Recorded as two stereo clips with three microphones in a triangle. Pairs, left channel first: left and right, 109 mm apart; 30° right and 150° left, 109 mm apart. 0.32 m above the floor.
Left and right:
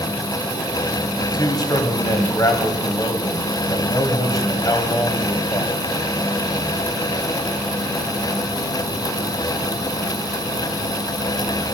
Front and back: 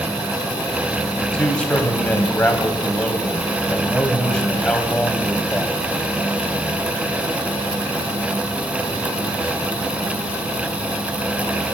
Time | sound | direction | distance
1.2 | a man speaking | 50° left | 2 m